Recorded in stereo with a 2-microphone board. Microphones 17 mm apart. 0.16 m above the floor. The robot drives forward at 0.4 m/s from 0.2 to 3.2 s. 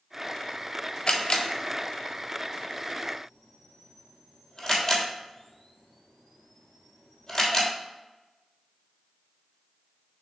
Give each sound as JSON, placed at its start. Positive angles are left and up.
{"t": 1.1, "sound": "a camera shutter", "side_deg": 55, "distance_m": 0.9}